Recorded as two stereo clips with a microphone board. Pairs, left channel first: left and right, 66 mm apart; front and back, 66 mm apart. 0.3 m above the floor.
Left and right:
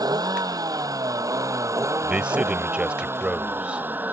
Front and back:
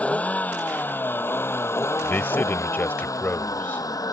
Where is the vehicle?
70° right; by 4.1 s 25° right.